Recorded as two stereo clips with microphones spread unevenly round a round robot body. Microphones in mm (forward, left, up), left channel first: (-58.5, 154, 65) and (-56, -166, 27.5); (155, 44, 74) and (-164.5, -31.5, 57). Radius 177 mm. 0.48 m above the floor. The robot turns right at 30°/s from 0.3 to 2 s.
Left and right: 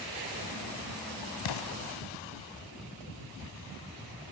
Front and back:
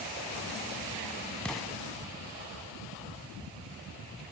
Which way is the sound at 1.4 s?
100° left.